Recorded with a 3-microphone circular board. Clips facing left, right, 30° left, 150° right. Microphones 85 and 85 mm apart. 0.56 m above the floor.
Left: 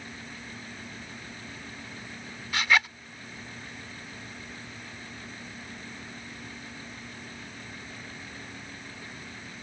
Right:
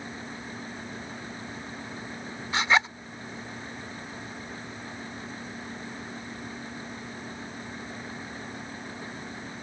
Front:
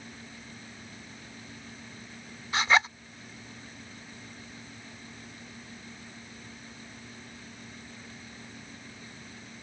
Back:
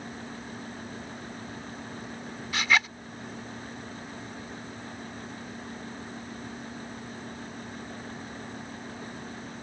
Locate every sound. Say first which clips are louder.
2.5 s a zipper: right 2 dB, front 2 dB; 30° right